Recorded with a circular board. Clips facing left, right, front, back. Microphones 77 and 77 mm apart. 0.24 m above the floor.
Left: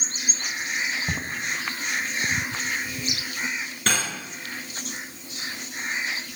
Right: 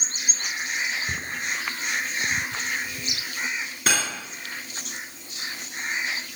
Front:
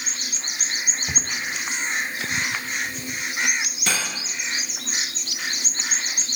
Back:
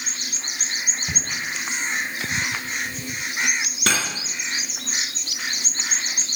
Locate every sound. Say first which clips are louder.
1.1 s footsteps: left 1 dB, even; 80° left, 1.9 m
3.9 s cutlery clinking: right 1 dB, back 4 dB; 175° right, 1.9 m